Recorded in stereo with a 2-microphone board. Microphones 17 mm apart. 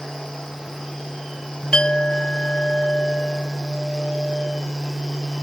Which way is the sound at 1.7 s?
65° left (ahead or behind).